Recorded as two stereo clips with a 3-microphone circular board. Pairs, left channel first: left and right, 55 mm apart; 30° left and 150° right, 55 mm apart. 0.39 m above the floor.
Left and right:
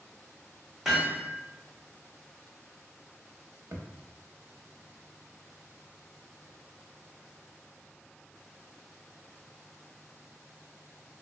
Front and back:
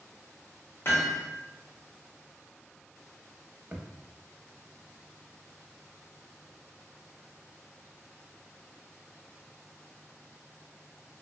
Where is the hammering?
5° right, 0.9 m.